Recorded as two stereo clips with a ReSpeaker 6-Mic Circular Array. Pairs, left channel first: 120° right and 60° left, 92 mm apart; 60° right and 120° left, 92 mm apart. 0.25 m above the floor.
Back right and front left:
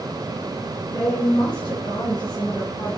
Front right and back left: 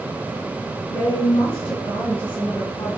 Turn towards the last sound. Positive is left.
turn(degrees=-65)